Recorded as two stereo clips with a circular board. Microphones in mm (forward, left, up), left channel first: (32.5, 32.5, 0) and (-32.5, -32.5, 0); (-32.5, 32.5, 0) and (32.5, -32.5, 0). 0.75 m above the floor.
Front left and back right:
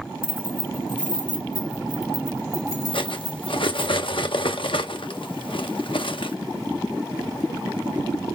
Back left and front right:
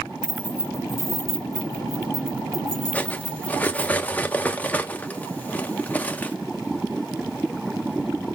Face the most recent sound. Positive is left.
turn(degrees=65)